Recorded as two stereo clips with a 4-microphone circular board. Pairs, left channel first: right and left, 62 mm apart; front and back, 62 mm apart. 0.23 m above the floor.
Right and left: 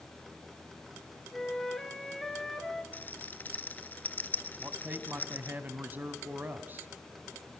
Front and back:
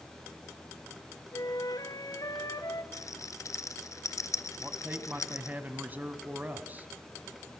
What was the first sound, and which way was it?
A flute, 10° right.